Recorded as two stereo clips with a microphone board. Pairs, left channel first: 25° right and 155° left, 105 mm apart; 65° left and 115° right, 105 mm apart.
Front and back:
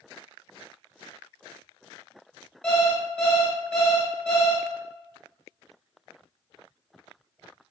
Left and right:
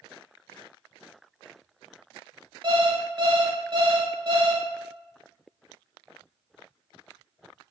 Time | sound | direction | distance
2.6 | an alarm clock | 105° right | 1.4 m